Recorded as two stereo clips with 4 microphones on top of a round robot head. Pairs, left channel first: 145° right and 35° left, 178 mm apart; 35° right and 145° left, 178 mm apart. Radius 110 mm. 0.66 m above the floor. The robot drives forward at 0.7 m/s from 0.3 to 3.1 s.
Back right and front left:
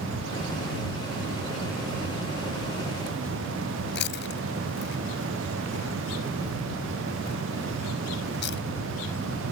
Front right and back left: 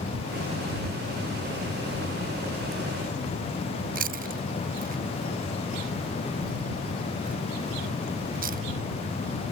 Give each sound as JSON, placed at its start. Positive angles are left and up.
{"t": 4.0, "sound": "chewing", "azimuth_deg": -170}